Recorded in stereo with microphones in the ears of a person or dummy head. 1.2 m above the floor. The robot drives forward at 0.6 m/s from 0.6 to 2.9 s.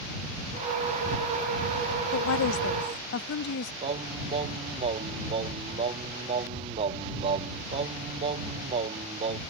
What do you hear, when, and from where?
2.1 s a woman speaking: 85° left; by 3.7 s 55° left (ahead or behind)
3.8 s singing: 35° right (ahead or behind)